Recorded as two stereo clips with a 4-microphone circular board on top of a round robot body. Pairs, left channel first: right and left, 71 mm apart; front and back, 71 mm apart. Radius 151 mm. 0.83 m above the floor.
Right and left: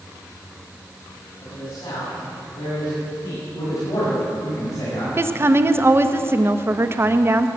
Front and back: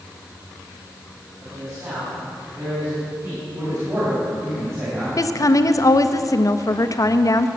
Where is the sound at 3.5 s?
130° right, 6 m.